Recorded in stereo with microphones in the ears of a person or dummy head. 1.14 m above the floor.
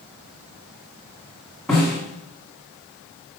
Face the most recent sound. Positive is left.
turn(degrees=0)  # may be behind; listen again after turning